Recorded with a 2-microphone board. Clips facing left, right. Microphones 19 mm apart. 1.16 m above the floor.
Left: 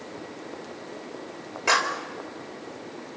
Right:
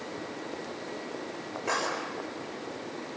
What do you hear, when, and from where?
1.7 s a clap: 85° left, 4.5 m